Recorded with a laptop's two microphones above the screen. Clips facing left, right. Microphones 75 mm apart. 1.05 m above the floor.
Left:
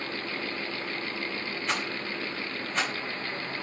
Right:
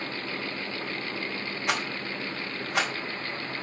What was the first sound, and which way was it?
A rattle, 75° right (ahead or behind).